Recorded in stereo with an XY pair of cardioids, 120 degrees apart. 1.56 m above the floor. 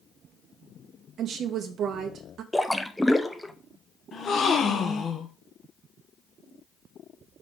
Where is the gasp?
45° left, 1.5 m.